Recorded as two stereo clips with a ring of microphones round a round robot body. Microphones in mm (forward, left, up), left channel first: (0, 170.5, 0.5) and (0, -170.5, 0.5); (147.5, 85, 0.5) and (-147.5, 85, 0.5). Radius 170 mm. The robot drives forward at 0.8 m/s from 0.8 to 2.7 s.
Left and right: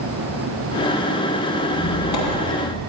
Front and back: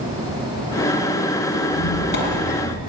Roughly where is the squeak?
Ahead left.